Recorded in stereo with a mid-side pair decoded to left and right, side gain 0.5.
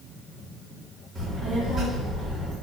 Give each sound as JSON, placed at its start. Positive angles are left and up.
{"t": 1.1, "sound": "a child speaking", "azimuth_deg": -45, "distance_m": 3.5}